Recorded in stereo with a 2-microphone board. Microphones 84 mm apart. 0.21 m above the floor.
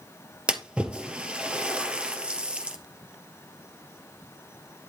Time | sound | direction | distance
0.5 | a splash | 15° right (ahead or behind) | 1.9 m